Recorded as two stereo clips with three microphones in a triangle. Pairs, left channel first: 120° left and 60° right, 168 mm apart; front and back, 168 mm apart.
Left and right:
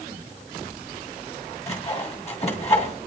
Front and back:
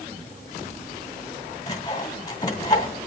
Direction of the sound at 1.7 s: 70° left.